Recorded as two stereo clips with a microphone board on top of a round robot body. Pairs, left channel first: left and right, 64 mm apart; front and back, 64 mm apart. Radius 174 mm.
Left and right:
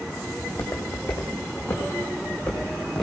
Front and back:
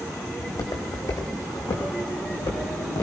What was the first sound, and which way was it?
Footsteps, 40° left.